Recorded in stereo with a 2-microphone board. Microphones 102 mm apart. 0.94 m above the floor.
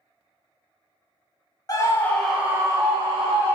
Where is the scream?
40° left (ahead or behind), 0.7 m; by 3.6 s 60° right (ahead or behind), 1.1 m.